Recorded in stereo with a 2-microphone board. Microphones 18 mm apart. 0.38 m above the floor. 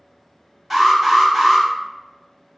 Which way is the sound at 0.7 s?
5° right (ahead or behind).